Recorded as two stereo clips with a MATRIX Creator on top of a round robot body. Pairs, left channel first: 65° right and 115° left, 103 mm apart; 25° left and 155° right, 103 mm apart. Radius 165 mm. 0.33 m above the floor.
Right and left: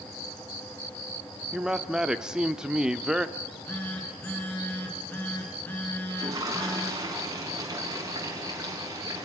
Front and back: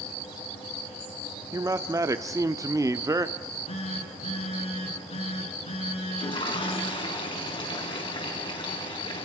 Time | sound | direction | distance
1.5 | a man speaking | 170° right | 1.1 m
3.4 | a phone buzzing | 5° left | 7 m
6.1 | a toilet flushing | 60° left | 5 m